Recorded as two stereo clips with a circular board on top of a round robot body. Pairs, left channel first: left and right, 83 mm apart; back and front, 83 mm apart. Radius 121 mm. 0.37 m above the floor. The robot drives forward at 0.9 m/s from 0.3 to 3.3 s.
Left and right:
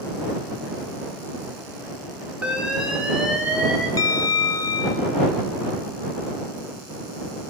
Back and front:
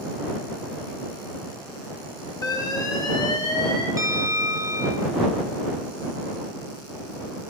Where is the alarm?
165° right, 2 m; by 3.9 s 170° right, 2.5 m.